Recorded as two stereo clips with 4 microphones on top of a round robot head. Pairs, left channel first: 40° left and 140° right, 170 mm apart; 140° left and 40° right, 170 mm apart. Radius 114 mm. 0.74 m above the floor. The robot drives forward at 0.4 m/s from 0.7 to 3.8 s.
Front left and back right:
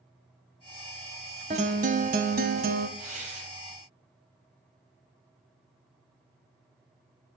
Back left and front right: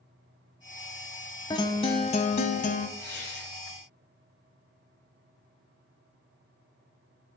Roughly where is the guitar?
Behind.